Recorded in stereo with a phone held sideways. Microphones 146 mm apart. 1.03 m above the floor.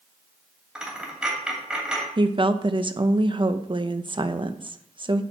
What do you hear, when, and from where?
0.8 s a dropped coin: 5° right (ahead or behind), 2.5 m
2.2 s a woman speaking: 35° right (ahead or behind), 0.6 m